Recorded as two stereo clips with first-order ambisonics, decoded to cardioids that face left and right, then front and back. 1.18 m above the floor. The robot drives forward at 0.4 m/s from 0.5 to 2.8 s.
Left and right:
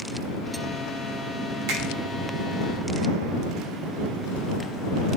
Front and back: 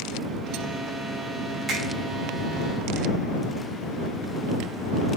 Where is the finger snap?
100° right, 5 m.